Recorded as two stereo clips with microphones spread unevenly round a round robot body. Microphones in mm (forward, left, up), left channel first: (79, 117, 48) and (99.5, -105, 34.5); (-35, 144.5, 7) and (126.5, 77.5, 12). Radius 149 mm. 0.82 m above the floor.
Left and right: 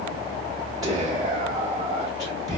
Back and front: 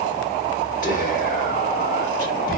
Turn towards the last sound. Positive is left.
turn(degrees=-160)